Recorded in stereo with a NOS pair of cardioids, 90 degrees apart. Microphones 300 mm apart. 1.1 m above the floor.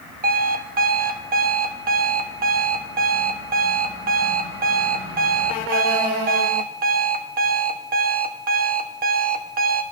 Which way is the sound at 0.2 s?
30° right.